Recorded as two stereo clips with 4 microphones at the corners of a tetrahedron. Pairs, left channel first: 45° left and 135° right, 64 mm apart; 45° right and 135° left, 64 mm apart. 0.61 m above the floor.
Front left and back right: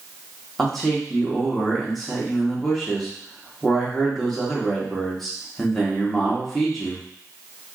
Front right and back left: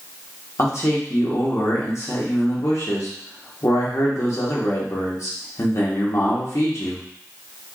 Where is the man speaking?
40° right, 1.3 m.